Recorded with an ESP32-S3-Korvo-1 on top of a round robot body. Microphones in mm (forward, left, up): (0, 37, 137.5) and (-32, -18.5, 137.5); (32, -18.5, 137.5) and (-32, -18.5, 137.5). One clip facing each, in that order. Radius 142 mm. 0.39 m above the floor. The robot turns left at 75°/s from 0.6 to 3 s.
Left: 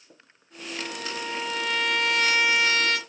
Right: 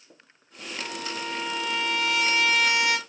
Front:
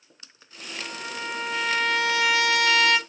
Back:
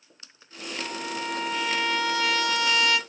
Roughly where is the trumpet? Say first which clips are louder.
Even, back 2 dB; behind left.